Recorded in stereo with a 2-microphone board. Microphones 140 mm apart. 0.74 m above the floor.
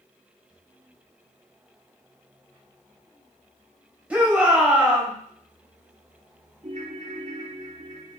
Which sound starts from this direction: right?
A ringtone, at 6.6 s.